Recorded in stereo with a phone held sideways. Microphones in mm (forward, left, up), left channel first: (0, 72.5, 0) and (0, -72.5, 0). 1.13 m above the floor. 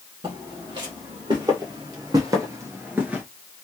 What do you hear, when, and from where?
0.2 s footsteps: 35° right (ahead or behind), 2 m; by 3.2 s 10° right (ahead or behind), 1.1 m